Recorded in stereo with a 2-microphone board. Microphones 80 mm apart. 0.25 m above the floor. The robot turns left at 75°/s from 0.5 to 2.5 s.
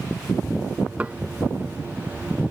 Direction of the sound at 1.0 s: 20° right (ahead or behind).